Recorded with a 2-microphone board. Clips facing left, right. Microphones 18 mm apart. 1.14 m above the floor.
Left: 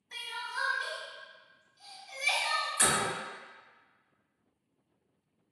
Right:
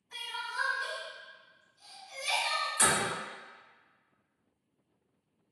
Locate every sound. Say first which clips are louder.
0.1 s crying: right 1 dB; 55° left (ahead or behind), 1.3 m
2.8 s a door slam: right 1 dB; 30° right (ahead or behind), 1.1 m